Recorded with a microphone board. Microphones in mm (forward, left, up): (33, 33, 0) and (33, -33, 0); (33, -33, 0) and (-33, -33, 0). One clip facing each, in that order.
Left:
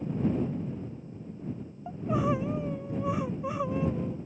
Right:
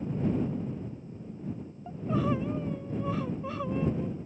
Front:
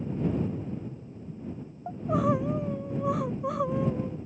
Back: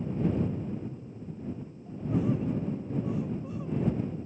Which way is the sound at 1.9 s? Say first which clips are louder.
Left 1 dB, front 4 dB; 15° left.